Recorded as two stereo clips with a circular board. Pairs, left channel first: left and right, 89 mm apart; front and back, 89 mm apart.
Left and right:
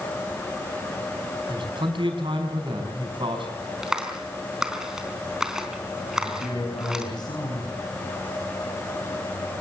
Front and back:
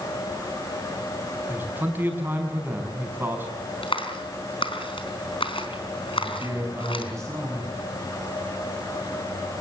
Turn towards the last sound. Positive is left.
turn(degrees=125)